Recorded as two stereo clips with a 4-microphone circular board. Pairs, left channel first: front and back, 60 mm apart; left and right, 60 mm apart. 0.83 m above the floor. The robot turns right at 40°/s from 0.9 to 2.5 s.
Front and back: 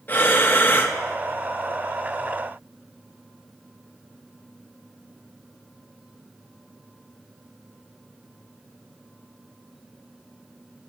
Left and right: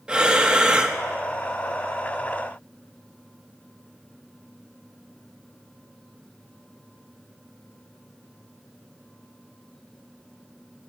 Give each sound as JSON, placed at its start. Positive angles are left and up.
{"t": 0.1, "sound": "breathing", "azimuth_deg": -30, "distance_m": 1.0}